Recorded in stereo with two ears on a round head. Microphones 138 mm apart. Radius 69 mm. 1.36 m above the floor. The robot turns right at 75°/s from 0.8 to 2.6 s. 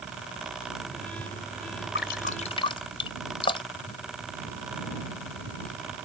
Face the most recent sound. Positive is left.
turn(degrees=35)  # may be behind; listen again after turning